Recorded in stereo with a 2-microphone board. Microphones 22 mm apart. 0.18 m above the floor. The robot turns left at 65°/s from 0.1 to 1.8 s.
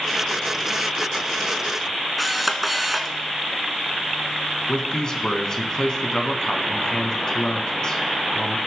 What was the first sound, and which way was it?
A camera shutter, 5° right (ahead or behind).